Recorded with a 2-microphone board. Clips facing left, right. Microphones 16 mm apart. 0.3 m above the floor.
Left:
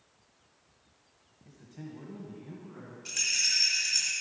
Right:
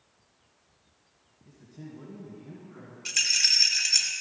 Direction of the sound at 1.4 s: 45° left (ahead or behind).